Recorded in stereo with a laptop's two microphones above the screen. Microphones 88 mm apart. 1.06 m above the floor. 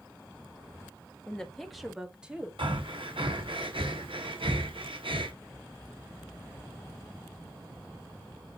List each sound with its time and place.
1.3 s a woman speaking: 10° left (ahead or behind), 1.8 m; by 2.5 s 15° right (ahead or behind), 2.5 m
2.6 s breathing: 75° right (ahead or behind), 1.2 m